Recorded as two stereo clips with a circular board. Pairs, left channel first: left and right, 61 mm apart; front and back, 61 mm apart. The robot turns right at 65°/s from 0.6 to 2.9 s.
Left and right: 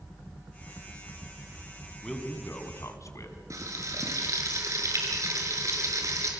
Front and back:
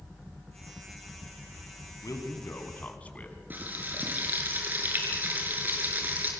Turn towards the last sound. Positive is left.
turn(degrees=-120)